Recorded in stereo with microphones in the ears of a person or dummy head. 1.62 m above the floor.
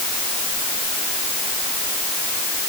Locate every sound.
Only background noise.